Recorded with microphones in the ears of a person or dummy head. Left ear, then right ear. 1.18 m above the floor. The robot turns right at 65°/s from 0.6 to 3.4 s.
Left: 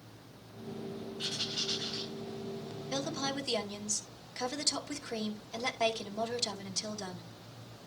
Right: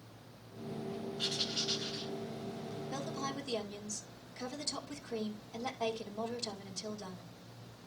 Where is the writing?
35° right, 7 m; by 2.1 s 25° left, 7 m.